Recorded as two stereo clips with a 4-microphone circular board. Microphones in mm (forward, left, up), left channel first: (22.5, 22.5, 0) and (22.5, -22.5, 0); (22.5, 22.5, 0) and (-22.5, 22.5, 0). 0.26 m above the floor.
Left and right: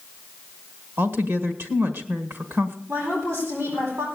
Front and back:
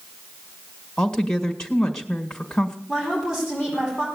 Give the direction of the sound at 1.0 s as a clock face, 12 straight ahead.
2 o'clock.